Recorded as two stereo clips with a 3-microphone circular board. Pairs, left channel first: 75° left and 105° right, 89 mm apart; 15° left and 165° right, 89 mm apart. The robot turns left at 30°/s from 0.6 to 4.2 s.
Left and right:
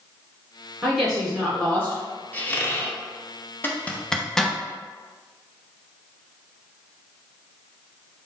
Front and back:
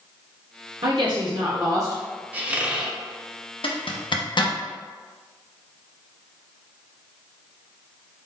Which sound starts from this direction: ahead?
A zipper, at 3.6 s.